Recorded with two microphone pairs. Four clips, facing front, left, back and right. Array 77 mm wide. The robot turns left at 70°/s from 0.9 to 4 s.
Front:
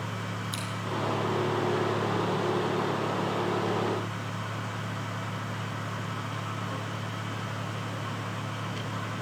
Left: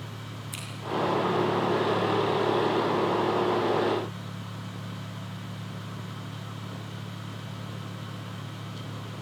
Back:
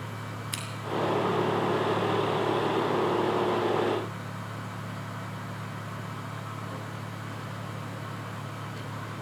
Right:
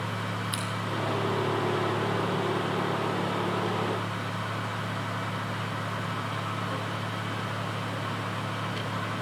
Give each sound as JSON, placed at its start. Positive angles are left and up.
{"t": 0.5, "sound": "scissors", "azimuth_deg": -155, "distance_m": 5.0}